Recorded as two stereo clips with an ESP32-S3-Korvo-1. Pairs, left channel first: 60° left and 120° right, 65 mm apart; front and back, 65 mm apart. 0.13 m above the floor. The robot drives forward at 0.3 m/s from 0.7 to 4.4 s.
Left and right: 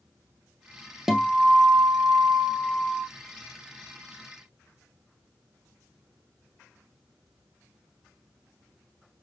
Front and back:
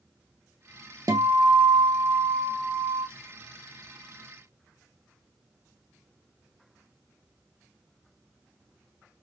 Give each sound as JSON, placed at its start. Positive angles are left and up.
{"t": 1.1, "sound": "a guitar", "azimuth_deg": 150, "distance_m": 0.7}